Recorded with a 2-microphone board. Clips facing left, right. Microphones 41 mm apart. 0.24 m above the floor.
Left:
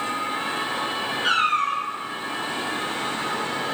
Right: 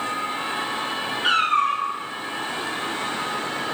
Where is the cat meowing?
10° right (ahead or behind), 1.3 m.